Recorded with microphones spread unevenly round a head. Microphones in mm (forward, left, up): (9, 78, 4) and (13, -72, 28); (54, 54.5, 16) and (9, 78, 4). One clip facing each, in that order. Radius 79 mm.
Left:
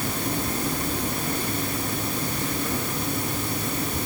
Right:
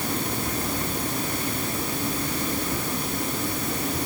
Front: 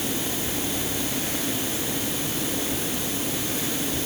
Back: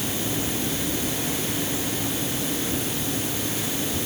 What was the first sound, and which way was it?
Only background noise.